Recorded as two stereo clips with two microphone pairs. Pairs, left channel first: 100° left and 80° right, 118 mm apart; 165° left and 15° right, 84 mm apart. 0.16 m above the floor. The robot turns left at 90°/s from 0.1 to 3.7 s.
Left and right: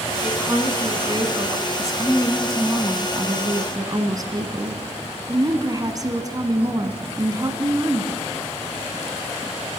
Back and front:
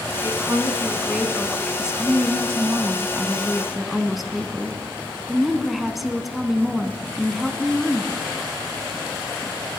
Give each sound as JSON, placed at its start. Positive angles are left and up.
{"t": 0.2, "sound": "a woman speaking", "azimuth_deg": -10, "distance_m": 1.5}
{"t": 1.8, "sound": "a woman speaking", "azimuth_deg": 65, "distance_m": 1.3}